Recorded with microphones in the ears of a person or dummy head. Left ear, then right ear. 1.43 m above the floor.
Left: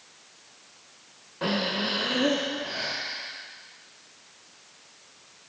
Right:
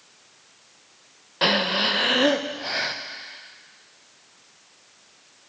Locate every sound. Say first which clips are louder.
1.4 s breathing: right 7 dB; 35° right (ahead or behind), 0.6 m